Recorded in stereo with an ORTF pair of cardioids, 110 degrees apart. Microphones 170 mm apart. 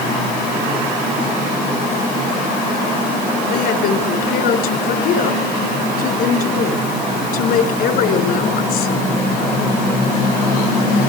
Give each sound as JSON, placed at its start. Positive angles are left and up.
{"t": 3.5, "sound": "a woman speaking", "azimuth_deg": 65, "distance_m": 4.5}